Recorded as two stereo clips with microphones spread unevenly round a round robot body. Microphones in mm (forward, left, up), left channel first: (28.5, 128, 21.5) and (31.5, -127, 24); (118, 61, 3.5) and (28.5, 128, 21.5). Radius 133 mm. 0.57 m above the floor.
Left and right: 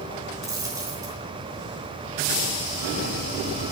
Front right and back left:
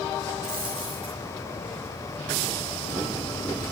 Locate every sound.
0.4 s a dropped coin: 165° right, 3 m